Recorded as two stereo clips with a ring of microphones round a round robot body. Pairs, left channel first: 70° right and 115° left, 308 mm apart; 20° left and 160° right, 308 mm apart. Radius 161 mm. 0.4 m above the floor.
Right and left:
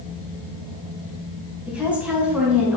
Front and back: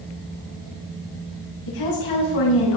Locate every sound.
1.7 s a woman speaking: 25° left, 3 m